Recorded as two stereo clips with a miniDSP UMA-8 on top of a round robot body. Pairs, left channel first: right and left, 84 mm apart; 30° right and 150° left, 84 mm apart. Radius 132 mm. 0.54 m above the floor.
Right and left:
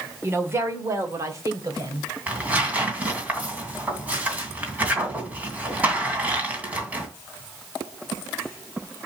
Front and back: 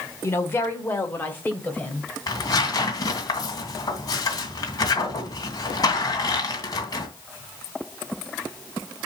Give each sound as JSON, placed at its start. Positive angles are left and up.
{"t": 0.2, "sound": "a woman speaking", "azimuth_deg": 30, "distance_m": 2.0}
{"t": 2.3, "sound": "tearing paper", "azimuth_deg": 15, "distance_m": 2.5}